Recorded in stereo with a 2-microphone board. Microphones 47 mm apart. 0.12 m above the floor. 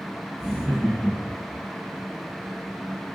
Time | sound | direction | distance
0.4 | laughter | 5° left (ahead or behind) | 1.5 m